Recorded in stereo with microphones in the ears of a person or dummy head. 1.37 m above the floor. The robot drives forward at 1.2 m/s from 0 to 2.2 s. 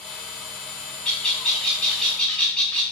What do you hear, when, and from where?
1.1 s a bird: 5° left (ahead or behind), 3 m